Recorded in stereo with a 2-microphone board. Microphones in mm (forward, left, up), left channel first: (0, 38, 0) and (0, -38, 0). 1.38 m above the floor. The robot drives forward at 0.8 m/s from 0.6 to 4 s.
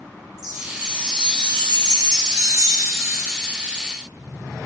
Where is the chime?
55° right (ahead or behind), 1.3 m; by 3.9 s 30° right (ahead or behind), 2 m.